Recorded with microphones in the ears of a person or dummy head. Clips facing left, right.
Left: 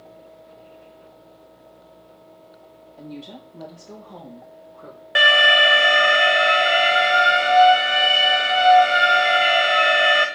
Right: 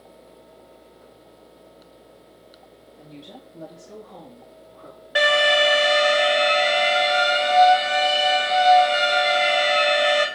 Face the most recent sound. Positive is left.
turn(degrees=35)  # may be behind; listen again after turning